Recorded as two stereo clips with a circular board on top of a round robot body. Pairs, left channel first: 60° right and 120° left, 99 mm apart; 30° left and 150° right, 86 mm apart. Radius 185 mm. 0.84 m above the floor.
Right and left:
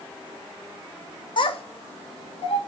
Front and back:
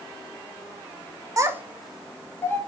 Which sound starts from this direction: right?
A child speaking, at 1.4 s.